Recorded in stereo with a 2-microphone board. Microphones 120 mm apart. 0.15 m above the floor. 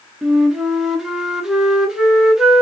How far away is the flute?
About 1.1 m.